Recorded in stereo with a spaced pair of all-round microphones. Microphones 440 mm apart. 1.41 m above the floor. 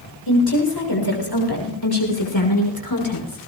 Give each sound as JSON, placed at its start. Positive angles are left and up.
{"t": 0.3, "sound": "a woman speaking", "side_deg": 65, "distance_m": 6.0}